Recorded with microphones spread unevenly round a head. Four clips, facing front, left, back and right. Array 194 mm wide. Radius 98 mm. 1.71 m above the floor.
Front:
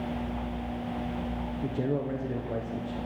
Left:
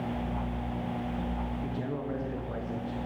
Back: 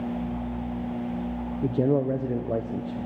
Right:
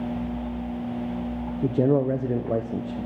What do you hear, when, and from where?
1.6 s a man speaking: 115° right, 0.9 m